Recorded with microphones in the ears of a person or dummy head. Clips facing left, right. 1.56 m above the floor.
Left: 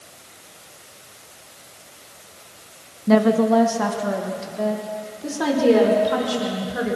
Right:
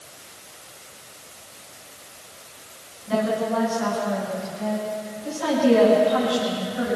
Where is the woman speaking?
60° left (ahead or behind), 1.8 m; by 7.0 s 80° left, 6.5 m.